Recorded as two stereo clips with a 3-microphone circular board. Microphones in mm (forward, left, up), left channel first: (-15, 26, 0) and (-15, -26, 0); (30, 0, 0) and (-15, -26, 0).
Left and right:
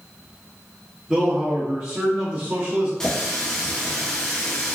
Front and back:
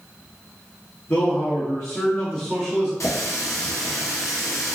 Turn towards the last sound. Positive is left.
turn(degrees=15)